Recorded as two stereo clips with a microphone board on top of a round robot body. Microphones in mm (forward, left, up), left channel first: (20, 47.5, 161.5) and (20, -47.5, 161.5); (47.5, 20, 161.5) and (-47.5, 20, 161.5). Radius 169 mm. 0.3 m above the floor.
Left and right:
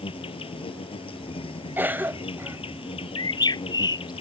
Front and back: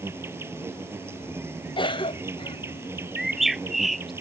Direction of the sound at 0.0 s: 115° left.